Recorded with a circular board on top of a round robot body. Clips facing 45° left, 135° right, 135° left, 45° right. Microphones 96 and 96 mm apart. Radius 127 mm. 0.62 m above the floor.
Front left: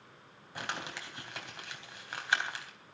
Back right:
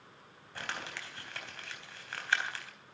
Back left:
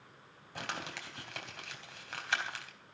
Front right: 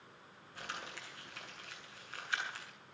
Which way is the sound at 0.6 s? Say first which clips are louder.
Front left 2 dB, back left 5 dB; 120° left.